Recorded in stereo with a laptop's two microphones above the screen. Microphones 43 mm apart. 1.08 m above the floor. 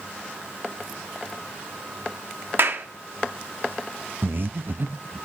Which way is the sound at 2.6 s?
55° right (ahead or behind).